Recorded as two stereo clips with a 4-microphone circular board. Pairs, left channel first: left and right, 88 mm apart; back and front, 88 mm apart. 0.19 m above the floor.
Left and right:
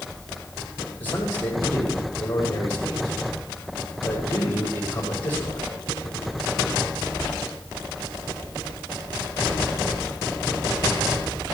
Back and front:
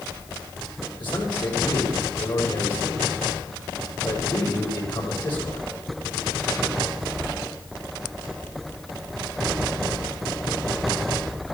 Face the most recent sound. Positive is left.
turn(degrees=155)